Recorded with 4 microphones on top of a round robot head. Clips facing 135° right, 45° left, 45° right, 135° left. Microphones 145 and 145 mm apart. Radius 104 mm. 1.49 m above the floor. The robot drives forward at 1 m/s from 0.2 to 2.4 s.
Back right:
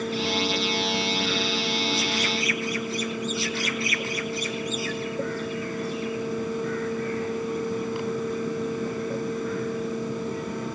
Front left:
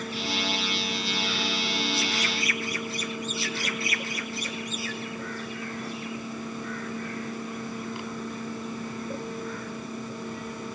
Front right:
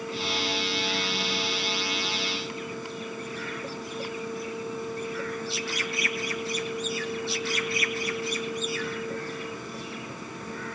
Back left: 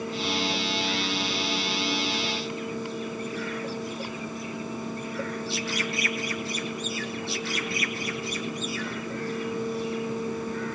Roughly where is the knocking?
No knocking in this recording.